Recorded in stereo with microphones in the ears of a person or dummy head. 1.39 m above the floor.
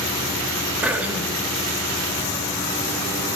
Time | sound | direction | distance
0.8 | throat clearing | 10° right (ahead or behind) | 1.5 m